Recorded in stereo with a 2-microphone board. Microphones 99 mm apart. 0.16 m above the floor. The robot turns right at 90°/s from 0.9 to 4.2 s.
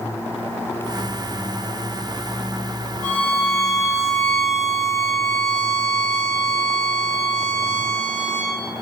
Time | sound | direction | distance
3.0 | a violin | 20° left | 0.7 m